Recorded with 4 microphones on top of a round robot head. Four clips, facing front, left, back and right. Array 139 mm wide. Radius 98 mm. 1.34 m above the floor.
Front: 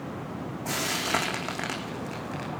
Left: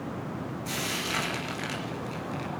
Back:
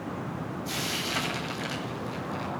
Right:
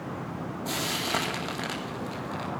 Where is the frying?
35° right, 3.5 m.